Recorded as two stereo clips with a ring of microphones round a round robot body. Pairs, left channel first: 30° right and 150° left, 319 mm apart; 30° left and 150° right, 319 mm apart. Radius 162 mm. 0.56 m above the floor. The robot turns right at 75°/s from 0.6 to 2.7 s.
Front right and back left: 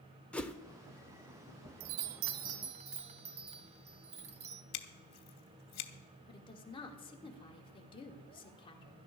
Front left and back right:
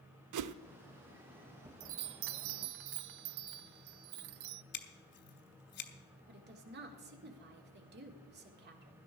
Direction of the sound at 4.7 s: 25° right.